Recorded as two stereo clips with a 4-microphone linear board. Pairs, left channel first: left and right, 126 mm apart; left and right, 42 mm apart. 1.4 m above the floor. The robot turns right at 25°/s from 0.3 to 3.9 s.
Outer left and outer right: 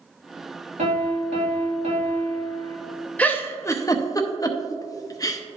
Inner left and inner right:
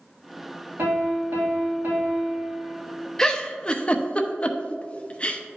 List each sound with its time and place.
0.8 s a piano: 95° right, 1.5 m; by 2.8 s 45° right, 1.5 m
3.2 s a giggle: 10° left (ahead or behind), 0.6 m; by 5.4 s 30° left (ahead or behind), 0.6 m